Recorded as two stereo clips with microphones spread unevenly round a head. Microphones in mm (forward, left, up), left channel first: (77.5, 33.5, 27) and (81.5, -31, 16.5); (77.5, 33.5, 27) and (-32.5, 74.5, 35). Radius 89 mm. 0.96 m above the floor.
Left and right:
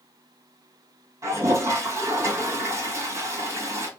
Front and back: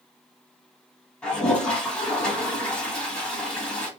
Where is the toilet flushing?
100° right, 1.2 m.